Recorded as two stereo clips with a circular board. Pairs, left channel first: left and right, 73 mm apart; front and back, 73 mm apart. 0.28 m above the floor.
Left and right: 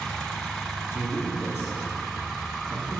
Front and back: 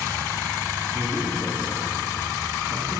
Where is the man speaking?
135° left, 2.0 m.